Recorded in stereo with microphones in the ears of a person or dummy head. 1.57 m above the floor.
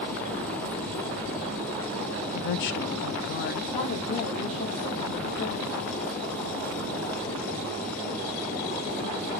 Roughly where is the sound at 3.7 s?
Left.